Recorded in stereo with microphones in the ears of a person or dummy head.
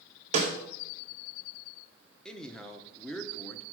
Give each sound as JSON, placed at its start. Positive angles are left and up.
{"t": 0.3, "sound": "a snare drum", "side_deg": -35, "distance_m": 1.9}
{"t": 2.2, "sound": "a man speaking", "side_deg": 0, "distance_m": 1.1}